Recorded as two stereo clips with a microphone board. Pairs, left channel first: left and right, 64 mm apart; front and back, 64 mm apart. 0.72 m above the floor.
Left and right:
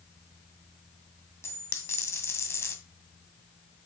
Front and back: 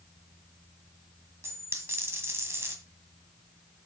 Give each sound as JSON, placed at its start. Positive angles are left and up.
{"t": 1.4, "sound": "a dropped coin", "azimuth_deg": 135, "distance_m": 1.6}